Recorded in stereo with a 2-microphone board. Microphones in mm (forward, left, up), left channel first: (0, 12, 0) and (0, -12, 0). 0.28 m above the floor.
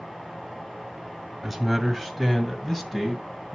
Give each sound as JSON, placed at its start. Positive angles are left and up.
{"t": 1.4, "sound": "a man speaking", "side_deg": 0, "distance_m": 1.4}